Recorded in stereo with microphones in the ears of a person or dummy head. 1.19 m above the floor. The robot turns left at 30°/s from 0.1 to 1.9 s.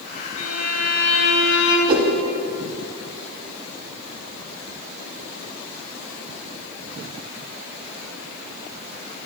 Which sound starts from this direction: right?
A whoosh, at 1.9 s.